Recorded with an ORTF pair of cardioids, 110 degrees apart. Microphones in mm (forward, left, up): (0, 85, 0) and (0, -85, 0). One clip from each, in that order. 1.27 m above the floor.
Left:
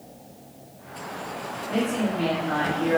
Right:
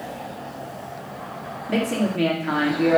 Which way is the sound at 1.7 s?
60° right.